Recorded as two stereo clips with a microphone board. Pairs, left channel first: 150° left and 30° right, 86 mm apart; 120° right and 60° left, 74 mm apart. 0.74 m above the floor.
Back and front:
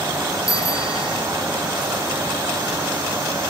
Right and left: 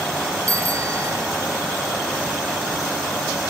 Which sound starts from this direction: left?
A bicycle bell, at 0.5 s.